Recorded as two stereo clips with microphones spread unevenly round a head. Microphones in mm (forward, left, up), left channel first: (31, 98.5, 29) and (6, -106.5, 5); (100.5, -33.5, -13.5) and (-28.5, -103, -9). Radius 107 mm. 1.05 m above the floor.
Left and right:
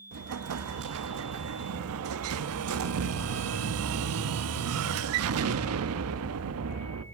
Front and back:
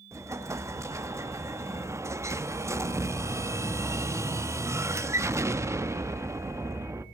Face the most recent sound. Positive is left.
turn(degrees=-80)